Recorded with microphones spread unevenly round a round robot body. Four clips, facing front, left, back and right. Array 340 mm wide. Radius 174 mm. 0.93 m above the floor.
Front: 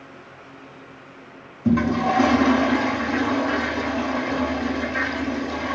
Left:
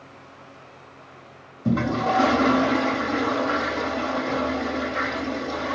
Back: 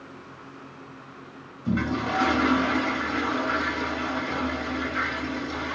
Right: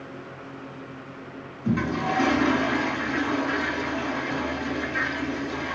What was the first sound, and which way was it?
A toilet flushing, 35° left.